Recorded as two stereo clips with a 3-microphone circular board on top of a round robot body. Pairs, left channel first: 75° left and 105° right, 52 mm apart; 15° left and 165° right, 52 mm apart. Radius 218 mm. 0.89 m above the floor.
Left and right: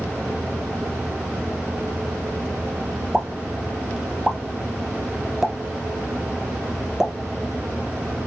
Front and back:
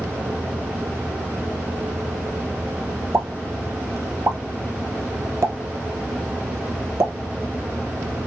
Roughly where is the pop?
Behind.